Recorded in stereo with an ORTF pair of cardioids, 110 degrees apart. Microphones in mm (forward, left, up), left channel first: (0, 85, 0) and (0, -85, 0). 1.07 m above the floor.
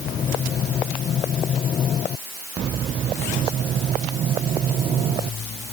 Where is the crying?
No crying in this recording.